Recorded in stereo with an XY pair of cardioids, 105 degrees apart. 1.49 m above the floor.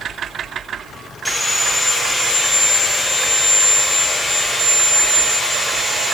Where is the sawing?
5° left, 1.3 m.